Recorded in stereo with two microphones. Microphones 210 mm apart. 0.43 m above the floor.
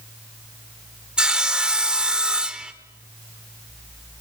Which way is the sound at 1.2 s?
5° right (ahead or behind).